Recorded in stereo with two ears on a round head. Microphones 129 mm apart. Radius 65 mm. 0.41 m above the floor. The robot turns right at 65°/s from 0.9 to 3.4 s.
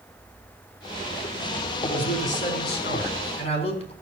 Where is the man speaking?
30° left, 3.5 m; by 3.9 s 135° left, 3.5 m.